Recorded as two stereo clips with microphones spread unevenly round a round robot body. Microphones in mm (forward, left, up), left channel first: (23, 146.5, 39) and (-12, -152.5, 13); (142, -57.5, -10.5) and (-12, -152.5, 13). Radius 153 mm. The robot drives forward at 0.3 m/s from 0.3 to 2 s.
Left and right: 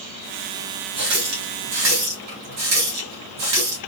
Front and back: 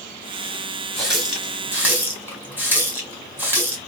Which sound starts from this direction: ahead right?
A running tap, at 1.0 s.